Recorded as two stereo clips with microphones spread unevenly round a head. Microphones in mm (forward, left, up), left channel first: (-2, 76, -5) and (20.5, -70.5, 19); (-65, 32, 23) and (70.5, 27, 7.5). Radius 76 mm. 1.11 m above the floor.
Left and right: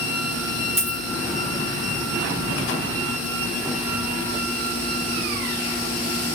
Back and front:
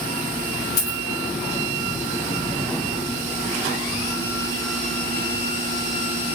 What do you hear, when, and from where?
0.8 s a dropped coin: 165° right, 2.5 m